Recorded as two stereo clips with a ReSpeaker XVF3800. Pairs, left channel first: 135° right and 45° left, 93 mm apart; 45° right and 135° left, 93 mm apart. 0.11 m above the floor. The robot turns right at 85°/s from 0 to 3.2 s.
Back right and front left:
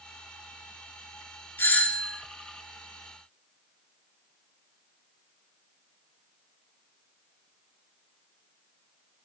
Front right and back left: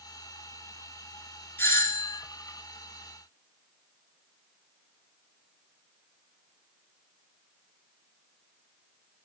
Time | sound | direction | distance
1.6 | a doorbell | 90° right | 1.8 m